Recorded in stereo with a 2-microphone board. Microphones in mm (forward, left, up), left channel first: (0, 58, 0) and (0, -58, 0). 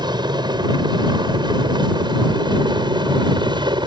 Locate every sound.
0.0 s a helicopter: 40° right (ahead or behind)